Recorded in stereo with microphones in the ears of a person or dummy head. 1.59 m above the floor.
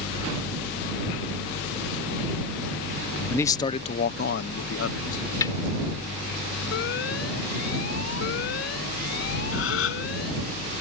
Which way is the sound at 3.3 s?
15° left (ahead or behind).